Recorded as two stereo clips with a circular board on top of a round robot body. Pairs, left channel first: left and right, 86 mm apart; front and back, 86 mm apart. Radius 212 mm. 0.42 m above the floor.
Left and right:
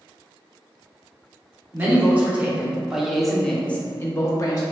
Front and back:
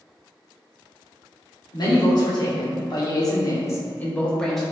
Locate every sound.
1.7 s a man speaking: 25° right, 1.5 m; by 4.6 s 85° left, 0.9 m